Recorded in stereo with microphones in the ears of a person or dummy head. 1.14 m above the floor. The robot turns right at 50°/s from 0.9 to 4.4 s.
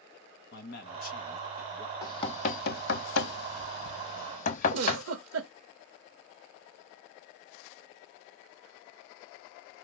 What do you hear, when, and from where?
0.5 s a man speaking: 125° left, 1.2 m; by 1.9 s 175° left, 1.2 m
2.0 s knocking: 25° left (ahead or behind), 0.8 m; by 5.0 s 35° left (ahead or behind), 0.8 m
4.7 s a giggle: 85° right, 1.7 m